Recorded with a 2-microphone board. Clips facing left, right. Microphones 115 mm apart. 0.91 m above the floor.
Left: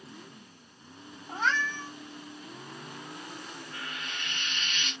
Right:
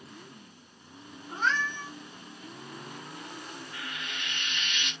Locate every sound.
1.3 s a cat meowing: 70° left (ahead or behind), 1.6 m
3.7 s frying: 35° left (ahead or behind), 0.9 m